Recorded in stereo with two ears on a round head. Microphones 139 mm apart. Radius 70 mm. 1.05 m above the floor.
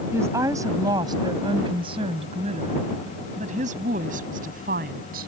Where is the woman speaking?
15° right (ahead or behind); by 5.3 s 65° right (ahead or behind).